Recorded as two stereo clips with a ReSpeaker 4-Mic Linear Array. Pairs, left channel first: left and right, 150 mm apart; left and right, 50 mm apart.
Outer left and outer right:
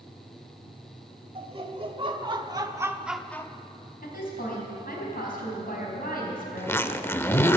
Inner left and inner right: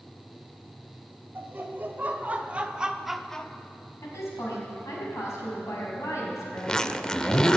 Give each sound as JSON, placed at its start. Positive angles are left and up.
{"t": 1.4, "sound": "laughter", "side_deg": -40, "distance_m": 2.0}
{"t": 4.0, "sound": "a woman speaking", "side_deg": 70, "distance_m": 4.5}
{"t": 6.6, "sound": "a zipper", "side_deg": 15, "distance_m": 0.5}